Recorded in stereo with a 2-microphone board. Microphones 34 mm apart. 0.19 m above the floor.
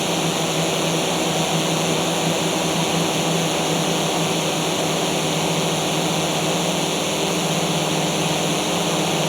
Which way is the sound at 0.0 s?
5° left (ahead or behind).